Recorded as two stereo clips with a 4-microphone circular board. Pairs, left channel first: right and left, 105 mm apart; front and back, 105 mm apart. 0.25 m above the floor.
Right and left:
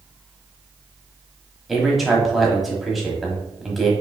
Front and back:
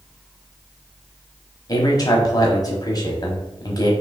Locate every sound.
1.7 s a man speaking: straight ahead, 1.1 m